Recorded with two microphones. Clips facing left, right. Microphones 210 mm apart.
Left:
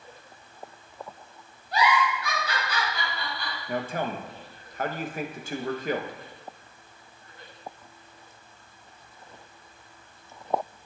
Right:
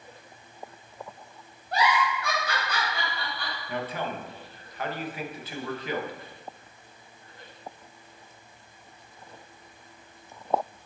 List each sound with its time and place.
1.7 s a giggle: 55° right (ahead or behind), 3 m
3.7 s a man speaking: 50° left (ahead or behind), 0.7 m